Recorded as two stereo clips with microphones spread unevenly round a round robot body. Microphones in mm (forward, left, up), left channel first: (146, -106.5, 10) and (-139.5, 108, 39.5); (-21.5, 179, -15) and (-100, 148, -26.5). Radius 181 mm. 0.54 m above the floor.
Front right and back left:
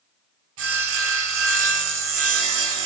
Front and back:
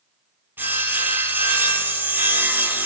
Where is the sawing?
130° left, 3 m.